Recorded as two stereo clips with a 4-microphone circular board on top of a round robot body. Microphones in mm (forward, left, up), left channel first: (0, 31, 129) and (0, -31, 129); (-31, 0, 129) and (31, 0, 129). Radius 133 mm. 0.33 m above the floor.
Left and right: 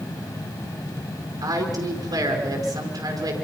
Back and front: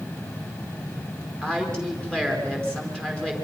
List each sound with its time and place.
1.4 s a woman speaking: 100° right, 5 m